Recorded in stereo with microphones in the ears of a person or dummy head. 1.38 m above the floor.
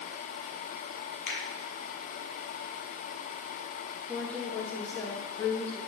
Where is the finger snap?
45° left (ahead or behind), 0.6 m.